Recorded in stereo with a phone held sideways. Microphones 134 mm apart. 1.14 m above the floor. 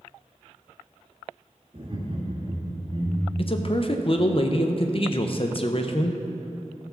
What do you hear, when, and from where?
1.7 s laughter: 40° right (ahead or behind), 2 m
3.4 s a man speaking: 45° left (ahead or behind), 0.6 m